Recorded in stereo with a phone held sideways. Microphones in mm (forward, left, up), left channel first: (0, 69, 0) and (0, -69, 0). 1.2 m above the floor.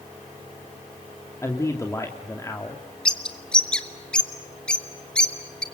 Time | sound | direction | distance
1.4 | a man speaking | 20° left (ahead or behind) | 2.5 m
3.0 | a bird | 5° left (ahead or behind) | 1.8 m